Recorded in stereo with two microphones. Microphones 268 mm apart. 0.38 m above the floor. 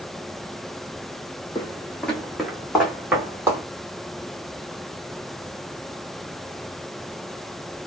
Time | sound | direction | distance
1.6 | footsteps | 15° left (ahead or behind) | 0.8 m